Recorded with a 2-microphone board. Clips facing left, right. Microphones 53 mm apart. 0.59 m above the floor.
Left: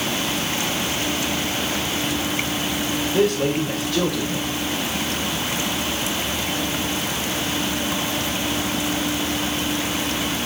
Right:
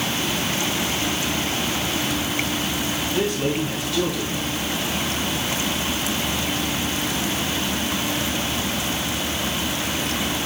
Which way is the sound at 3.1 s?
65° left (ahead or behind).